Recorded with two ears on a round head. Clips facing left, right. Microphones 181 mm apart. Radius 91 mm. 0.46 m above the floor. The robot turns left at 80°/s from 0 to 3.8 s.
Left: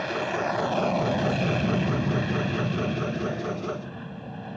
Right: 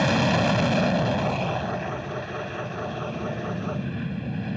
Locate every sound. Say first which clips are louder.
0.0 s an aircraft: right 6 dB; 90° right; by 4.6 s 35° right